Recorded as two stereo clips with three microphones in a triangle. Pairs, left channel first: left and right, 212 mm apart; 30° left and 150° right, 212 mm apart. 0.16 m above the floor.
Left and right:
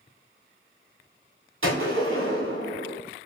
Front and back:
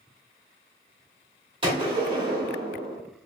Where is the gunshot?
85° right, 1.6 m.